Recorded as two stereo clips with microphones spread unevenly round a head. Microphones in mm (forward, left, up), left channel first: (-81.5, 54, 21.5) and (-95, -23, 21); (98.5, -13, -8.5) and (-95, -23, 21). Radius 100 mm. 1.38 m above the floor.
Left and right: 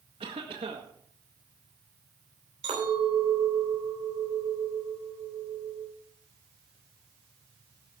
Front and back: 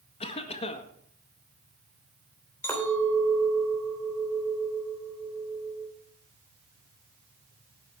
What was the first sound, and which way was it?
A cough, 60° right.